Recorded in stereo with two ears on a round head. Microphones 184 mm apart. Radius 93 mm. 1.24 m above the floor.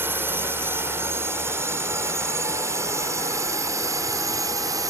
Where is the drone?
10° right (ahead or behind); by 4.9 s 15° right (ahead or behind).